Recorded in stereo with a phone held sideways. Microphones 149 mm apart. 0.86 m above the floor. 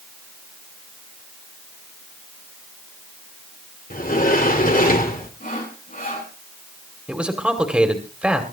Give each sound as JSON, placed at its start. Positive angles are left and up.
{"t": 3.9, "sound": "a sliding door", "side_deg": 70, "distance_m": 2.0}
{"t": 5.4, "sound": "sawing", "side_deg": 70, "distance_m": 8.0}
{"t": 7.1, "sound": "a man speaking", "side_deg": -10, "distance_m": 2.0}